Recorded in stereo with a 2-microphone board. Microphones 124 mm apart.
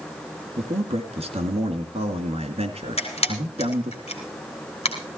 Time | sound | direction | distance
0.6 | a man speaking | 55° right (ahead or behind) | 2 m
3.0 | a camera shutter | 55° left (ahead or behind) | 3 m